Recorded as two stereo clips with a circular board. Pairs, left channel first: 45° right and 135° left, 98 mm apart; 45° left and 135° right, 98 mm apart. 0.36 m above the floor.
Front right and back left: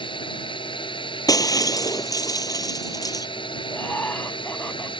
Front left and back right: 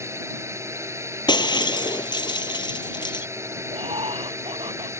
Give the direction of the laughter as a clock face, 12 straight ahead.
4 o'clock.